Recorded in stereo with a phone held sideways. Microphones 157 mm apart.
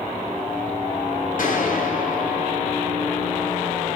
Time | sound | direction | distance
1.4 | a gunshot | 70° left (ahead or behind) | 7.5 m